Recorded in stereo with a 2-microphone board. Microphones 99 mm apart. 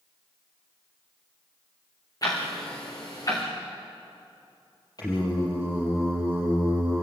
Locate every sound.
2.2 s ticking: 40° left (ahead or behind), 6 m
5.0 s singing: 40° left (ahead or behind), 6 m